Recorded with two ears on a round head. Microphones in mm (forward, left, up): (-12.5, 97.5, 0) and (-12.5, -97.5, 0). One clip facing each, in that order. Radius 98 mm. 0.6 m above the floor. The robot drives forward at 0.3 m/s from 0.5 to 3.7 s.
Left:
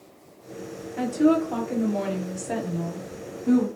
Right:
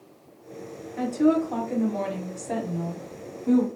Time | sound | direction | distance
1.0 | a woman speaking | 5° left (ahead or behind) | 1.3 m